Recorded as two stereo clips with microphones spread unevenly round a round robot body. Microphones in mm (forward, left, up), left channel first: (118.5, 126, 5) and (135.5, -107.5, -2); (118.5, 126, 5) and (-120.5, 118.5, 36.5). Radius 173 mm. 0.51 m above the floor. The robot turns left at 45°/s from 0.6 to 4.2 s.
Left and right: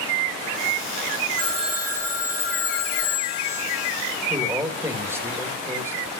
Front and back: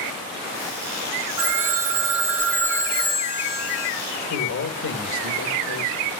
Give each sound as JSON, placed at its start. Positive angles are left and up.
{"t": 1.4, "sound": "a phone ringing", "azimuth_deg": -150, "distance_m": 4.0}
{"t": 4.3, "sound": "a man speaking", "azimuth_deg": -10, "distance_m": 2.5}